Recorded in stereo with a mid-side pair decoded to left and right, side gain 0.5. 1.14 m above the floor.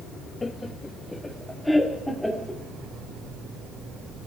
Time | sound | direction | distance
0.4 | laughter | 25° left | 1.2 m